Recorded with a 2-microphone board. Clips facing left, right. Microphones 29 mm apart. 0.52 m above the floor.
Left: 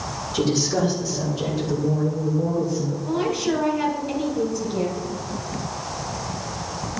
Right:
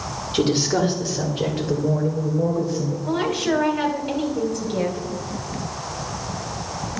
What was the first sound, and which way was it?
A woman speaking, 50° right (ahead or behind).